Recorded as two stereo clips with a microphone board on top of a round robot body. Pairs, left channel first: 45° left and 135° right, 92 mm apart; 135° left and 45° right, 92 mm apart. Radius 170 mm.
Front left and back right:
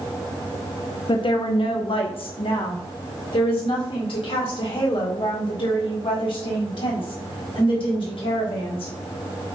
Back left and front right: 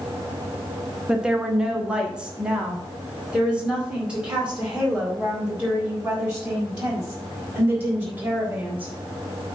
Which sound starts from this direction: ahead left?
A woman speaking, at 1.1 s.